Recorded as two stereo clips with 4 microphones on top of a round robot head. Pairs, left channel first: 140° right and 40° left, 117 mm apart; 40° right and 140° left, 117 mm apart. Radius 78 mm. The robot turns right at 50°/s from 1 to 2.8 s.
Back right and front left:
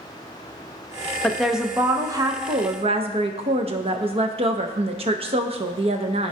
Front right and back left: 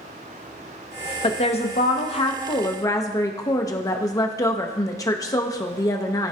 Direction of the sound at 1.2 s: 60° right.